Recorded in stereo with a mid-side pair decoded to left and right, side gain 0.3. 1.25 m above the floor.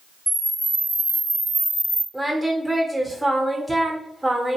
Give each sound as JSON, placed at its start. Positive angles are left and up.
{"t": 0.3, "sound": "a camera shutter", "azimuth_deg": -35, "distance_m": 1.0}
{"t": 2.1, "sound": "singing", "azimuth_deg": -25, "distance_m": 0.8}